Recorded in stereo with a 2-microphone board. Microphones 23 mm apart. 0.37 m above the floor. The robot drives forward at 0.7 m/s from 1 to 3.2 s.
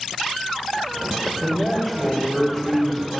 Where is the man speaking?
5° right (ahead or behind), 1.9 m.